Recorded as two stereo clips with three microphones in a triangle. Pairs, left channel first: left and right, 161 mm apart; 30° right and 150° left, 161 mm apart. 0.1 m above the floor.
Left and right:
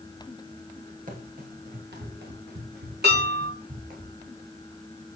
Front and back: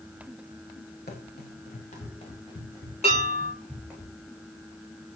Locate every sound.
1.1 s running footsteps: 55° right, 3.5 m; by 4.0 s 130° right, 4 m
3.0 s dishes clattering: 80° right, 5 m